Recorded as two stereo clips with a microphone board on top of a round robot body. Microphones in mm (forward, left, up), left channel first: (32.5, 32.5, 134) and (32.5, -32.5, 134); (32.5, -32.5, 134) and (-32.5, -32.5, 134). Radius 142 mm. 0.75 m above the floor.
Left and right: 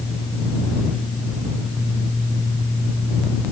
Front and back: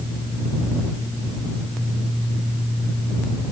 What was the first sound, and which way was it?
Only background noise.